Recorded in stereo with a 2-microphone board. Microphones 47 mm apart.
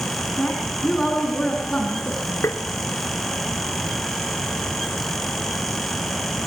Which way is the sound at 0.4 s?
10° left (ahead or behind).